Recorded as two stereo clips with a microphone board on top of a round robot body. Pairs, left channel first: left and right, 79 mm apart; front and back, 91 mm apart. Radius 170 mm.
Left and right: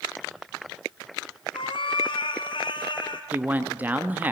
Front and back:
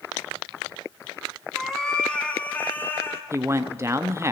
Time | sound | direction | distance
1.5 | a cat meowing | 90° left | 2 m
3.3 | a man speaking | 145° right | 1.5 m